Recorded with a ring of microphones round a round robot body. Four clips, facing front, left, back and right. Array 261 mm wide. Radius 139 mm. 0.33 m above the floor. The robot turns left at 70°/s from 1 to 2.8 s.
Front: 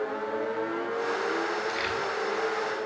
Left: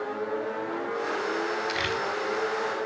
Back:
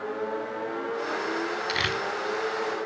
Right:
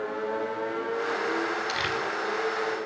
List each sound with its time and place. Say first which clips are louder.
1.7 s crumpling: even, back 1 dB; 170° right, 0.7 m; by 2.0 s 165° left, 0.7 m